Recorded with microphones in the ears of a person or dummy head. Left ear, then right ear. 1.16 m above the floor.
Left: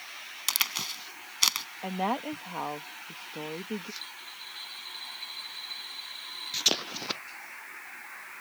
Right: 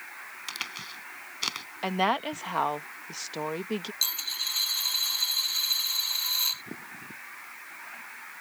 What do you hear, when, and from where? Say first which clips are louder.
0.5 s a crack: left 7 dB; 40° left (ahead or behind)
1.8 s a woman speaking: right 5 dB; 45° right (ahead or behind)
4.0 s a dropped coin: right 12 dB; 55° right (ahead or behind)